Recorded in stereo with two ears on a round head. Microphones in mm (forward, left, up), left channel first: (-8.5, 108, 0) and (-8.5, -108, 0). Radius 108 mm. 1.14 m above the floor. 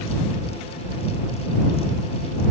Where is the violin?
No violin in this recording.